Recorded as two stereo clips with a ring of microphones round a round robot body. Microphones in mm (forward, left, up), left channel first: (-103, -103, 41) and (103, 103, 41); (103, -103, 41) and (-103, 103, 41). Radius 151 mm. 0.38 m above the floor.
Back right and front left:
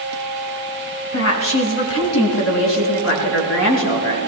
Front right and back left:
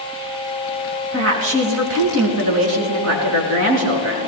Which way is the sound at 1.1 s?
Straight behind.